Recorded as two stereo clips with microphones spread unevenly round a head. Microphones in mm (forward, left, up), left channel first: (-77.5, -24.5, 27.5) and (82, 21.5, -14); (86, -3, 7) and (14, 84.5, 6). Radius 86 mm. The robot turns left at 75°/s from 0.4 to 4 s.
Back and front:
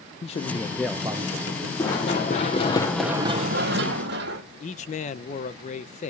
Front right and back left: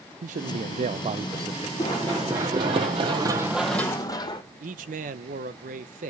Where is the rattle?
No rattle in this recording.